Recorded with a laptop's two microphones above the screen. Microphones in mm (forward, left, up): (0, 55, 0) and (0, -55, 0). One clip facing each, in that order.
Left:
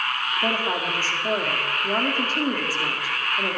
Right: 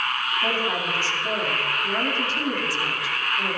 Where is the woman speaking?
40° left (ahead or behind), 2 m.